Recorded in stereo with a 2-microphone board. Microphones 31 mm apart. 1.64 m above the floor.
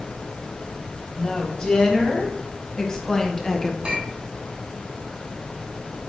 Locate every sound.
1.2 s a woman speaking: 25° left (ahead or behind), 3 m; by 3.7 s 10° left (ahead or behind), 1.1 m
3.8 s a clink: 30° right (ahead or behind), 3 m